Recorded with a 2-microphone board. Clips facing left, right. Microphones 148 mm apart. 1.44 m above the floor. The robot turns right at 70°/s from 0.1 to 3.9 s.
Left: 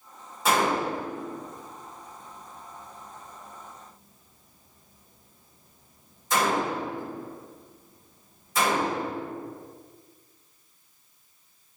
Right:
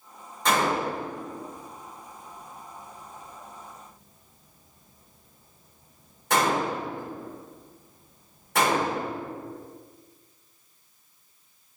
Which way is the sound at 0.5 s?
5° left (ahead or behind).